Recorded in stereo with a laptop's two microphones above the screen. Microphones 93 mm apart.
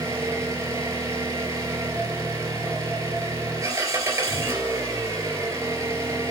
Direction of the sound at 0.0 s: 40° right (ahead or behind).